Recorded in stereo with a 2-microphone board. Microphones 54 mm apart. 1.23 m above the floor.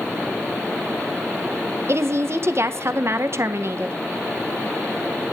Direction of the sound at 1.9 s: 50° right (ahead or behind).